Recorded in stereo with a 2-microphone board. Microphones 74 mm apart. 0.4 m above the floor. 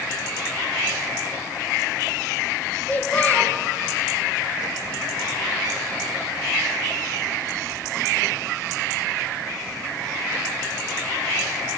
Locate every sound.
2.9 s a child speaking: 25° left (ahead or behind), 1.7 m